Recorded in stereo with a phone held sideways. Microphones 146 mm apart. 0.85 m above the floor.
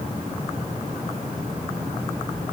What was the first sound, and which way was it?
Only background noise.